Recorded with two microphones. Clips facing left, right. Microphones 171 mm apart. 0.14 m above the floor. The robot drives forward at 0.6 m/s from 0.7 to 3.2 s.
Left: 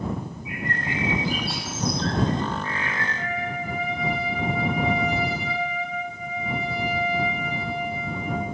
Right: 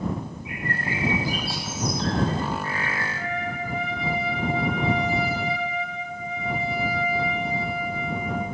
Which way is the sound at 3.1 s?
35° left (ahead or behind).